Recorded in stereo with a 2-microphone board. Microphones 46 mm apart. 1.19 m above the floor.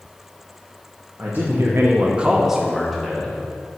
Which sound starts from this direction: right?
A man speaking, at 1.2 s.